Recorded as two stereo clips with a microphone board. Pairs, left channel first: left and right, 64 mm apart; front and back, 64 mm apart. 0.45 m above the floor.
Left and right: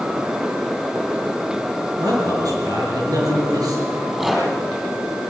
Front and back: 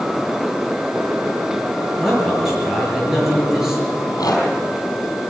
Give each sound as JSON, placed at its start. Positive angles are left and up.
{"t": 2.0, "sound": "a man speaking", "azimuth_deg": -95, "distance_m": 7.5}
{"t": 3.9, "sound": "a rattle", "azimuth_deg": -5, "distance_m": 4.5}